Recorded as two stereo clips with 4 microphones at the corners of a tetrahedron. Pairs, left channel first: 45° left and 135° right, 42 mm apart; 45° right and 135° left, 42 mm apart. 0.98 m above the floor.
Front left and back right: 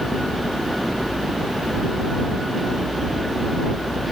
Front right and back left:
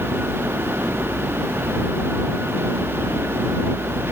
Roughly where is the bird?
I don't hear a bird.